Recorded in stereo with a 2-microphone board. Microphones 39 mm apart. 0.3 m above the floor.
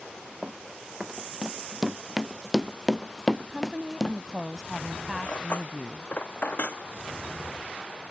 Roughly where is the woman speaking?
Centre.